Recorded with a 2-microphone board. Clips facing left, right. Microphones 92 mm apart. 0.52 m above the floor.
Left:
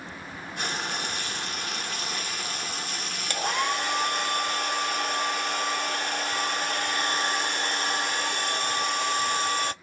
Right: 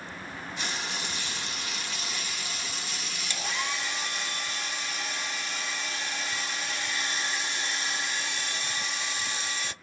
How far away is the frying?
About 1.0 m.